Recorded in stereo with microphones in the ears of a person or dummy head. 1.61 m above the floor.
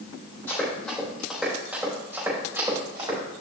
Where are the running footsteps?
15° left (ahead or behind), 3.5 m; by 3.2 s 20° right (ahead or behind), 5.5 m.